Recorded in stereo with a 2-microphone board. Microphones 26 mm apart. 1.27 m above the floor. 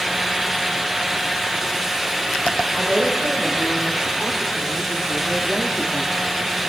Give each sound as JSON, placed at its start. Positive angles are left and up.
{"t": 2.7, "sound": "a woman speaking", "side_deg": -45, "distance_m": 5.0}